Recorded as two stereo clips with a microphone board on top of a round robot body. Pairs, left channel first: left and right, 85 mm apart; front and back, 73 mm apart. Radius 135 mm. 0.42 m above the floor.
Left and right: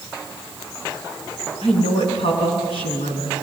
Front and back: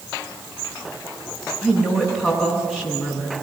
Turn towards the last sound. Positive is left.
turn(degrees=85)